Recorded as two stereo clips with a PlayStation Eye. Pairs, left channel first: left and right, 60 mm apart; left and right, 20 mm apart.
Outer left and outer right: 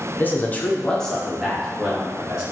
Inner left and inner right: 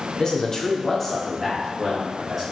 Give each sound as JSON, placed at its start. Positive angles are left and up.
{"t": 0.2, "sound": "a man speaking", "side_deg": 30, "distance_m": 0.6}